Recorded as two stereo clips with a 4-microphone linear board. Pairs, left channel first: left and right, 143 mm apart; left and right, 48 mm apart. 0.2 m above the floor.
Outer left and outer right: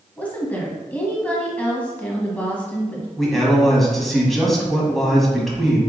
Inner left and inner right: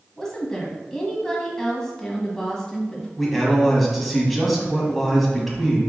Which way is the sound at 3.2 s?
Centre (ahead or behind).